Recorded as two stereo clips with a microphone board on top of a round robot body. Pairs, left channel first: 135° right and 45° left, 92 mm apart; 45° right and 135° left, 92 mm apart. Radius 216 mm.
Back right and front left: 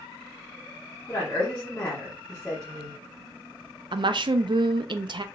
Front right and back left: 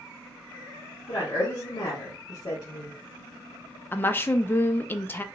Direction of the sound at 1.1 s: 70° right.